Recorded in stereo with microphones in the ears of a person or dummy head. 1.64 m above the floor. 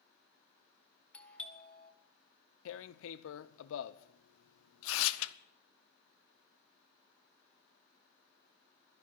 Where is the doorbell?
10° left (ahead or behind), 1.6 m.